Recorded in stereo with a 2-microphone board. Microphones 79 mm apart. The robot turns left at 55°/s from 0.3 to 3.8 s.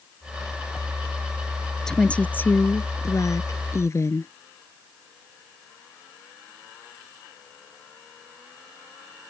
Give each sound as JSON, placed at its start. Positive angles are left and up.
{"t": 1.9, "sound": "a woman speaking", "azimuth_deg": 170}